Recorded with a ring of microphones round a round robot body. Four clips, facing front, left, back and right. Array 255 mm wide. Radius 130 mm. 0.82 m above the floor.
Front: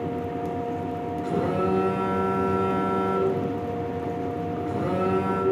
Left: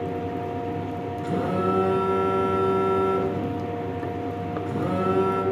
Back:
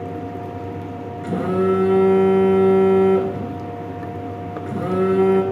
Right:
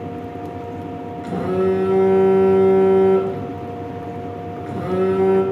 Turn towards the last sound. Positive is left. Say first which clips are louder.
# right 6 dB, back 6 dB
turn(degrees=-170)